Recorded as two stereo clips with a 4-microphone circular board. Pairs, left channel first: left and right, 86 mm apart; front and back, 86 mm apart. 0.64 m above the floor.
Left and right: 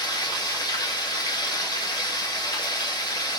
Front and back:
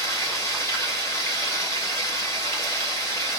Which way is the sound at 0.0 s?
55° left.